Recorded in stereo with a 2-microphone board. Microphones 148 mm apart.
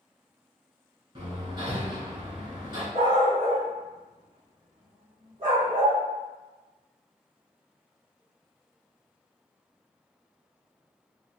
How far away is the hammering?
About 1.1 m.